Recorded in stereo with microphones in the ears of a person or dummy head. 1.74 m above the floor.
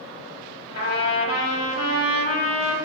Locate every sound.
0.8 s a trumpet: 45° left (ahead or behind), 1.2 m